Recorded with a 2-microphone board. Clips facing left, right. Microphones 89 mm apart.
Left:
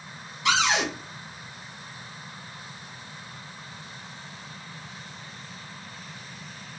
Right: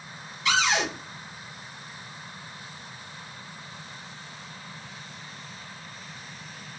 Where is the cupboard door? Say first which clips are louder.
Left 1 dB; 70° left (ahead or behind), 2.5 m.